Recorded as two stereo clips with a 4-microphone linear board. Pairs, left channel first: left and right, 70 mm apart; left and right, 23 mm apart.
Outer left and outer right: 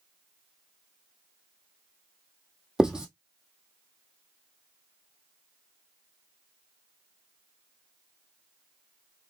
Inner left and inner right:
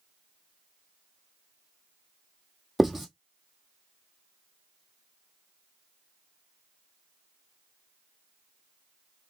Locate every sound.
2.8 s writing: 10° right (ahead or behind), 1.2 m